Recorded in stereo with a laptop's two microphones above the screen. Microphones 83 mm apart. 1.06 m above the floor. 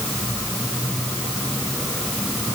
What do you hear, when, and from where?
Only background noise.